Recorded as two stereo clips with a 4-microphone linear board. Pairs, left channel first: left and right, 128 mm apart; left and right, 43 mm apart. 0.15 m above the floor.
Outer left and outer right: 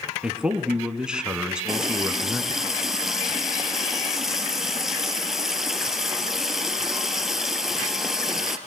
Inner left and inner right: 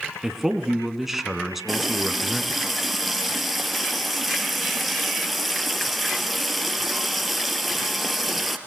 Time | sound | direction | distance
0.2 | a man speaking | 5° right (ahead or behind) | 1.8 m
1.7 | a running tap | 5° right (ahead or behind) | 1.9 m